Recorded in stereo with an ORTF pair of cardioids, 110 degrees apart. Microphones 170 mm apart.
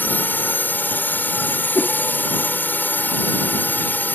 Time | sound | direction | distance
0.0 | a drone | 10° left | ?
1.8 | a whoosh | 15° left | ?